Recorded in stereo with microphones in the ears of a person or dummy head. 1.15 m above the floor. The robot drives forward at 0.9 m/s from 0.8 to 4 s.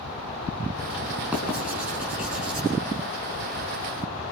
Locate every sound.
1.3 s writing: 10° right (ahead or behind), 5.5 m